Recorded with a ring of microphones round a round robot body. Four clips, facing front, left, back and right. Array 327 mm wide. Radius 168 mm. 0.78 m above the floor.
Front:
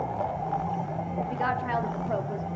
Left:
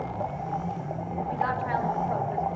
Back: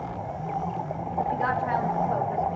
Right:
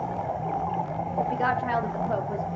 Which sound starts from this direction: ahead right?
A woman speaking, at 1.3 s.